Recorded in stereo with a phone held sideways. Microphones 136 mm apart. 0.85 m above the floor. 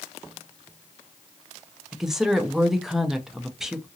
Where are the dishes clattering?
No dishes clattering in this recording.